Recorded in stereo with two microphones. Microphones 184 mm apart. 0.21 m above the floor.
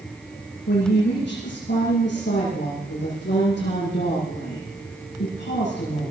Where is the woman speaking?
75° left (ahead or behind), 9 m.